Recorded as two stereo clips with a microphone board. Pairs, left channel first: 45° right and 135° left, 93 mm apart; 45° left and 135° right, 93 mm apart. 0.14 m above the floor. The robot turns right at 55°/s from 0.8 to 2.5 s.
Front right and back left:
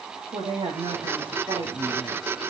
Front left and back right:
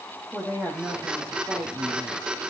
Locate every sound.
0.3 s a woman speaking: 125° left, 7 m; by 2.2 s 155° right, 7 m